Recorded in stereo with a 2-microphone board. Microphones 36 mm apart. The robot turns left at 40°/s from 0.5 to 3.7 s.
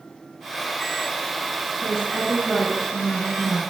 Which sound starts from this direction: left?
A woman speaking, at 1.8 s.